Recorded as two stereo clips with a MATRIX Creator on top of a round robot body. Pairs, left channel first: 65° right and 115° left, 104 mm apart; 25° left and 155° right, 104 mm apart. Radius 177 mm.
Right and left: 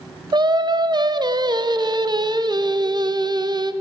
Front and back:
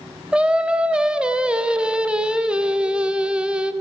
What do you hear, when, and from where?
0.3 s singing: 125° left, 0.6 m